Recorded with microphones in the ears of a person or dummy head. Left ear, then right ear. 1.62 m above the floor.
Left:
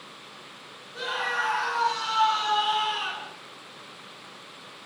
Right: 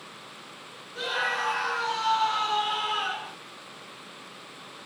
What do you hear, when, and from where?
0.9 s a scream: 55° left (ahead or behind), 1.0 m; by 3.4 s 35° left (ahead or behind), 1.5 m